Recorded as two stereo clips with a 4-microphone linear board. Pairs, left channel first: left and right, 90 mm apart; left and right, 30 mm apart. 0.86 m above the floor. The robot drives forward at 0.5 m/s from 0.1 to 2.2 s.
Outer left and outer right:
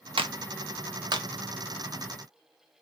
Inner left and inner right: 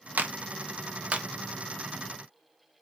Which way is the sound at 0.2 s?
85° right.